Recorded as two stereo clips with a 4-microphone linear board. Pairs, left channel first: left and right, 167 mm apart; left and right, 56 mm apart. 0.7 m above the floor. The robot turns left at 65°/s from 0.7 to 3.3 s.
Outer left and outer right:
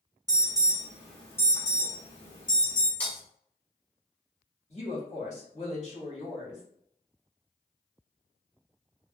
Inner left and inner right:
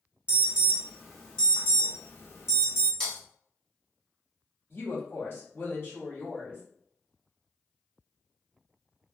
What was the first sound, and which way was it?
An alarm, 20° right (ahead or behind).